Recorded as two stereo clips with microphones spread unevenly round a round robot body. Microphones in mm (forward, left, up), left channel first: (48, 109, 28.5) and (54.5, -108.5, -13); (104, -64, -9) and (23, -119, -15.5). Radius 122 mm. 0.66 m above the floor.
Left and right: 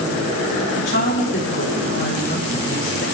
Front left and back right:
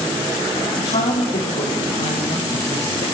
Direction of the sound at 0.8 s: 60° left.